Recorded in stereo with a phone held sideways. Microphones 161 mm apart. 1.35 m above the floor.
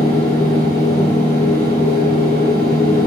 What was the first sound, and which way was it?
A machine running, 65° left (ahead or behind).